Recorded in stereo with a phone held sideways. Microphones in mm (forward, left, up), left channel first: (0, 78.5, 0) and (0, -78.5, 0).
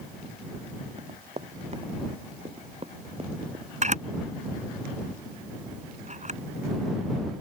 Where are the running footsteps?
45° right (ahead or behind); by 3.6 s 40° right (ahead or behind).